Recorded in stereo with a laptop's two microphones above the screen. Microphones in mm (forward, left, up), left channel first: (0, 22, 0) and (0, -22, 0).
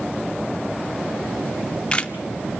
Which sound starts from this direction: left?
A camera shutter, at 1.5 s.